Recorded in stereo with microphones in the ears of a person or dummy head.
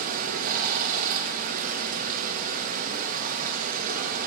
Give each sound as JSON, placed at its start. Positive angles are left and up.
{"t": 0.0, "sound": "running water", "side_deg": -45, "distance_m": 1.4}